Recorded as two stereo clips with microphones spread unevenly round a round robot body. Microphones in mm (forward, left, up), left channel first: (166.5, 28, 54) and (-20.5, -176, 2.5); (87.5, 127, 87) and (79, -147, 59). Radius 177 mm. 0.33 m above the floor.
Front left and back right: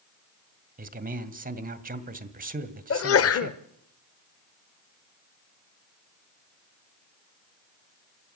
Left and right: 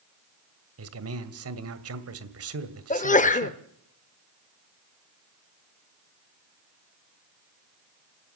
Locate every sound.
0.8 s a man speaking: 85° right, 1.9 m
2.9 s a sneeze: 30° left, 1.1 m